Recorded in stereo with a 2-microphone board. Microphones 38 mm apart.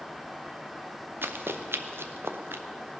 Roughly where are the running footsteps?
Right.